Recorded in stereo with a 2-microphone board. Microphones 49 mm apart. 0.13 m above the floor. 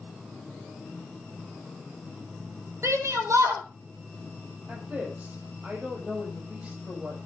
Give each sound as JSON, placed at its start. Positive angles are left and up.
{"t": 2.8, "sound": "a shout", "side_deg": -70, "distance_m": 4.0}
{"t": 4.7, "sound": "a woman speaking", "side_deg": -30, "distance_m": 5.0}